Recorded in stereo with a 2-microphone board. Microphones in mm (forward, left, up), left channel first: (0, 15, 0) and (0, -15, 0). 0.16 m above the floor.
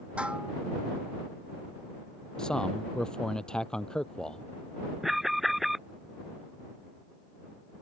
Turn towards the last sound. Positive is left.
turn(degrees=-5)  # may be behind; listen again after turning